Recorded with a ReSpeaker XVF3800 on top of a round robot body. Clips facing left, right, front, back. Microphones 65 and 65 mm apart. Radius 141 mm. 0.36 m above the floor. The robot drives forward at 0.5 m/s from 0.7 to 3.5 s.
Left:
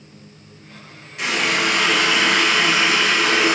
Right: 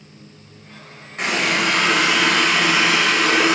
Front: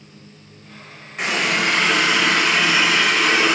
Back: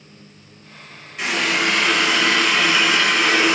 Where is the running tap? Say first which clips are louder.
Even, even; 45° right, 1.6 m; by 3.5 s 95° right, 1.2 m.